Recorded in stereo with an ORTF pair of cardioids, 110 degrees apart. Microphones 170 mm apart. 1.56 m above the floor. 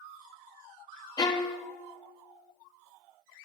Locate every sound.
1.2 s a violin: 25° left, 1.0 m